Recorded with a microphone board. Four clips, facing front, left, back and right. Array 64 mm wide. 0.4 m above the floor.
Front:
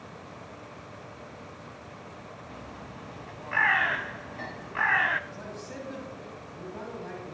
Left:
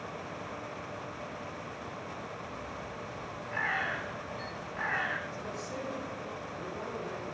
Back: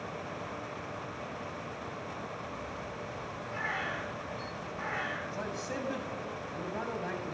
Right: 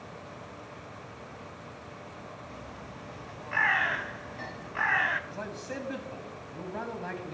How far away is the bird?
About 0.8 m.